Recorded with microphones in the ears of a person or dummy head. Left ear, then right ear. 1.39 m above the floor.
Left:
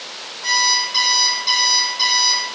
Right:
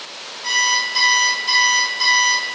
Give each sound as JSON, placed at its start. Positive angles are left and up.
{"t": 0.4, "sound": "an alarm clock", "side_deg": 60, "distance_m": 1.2}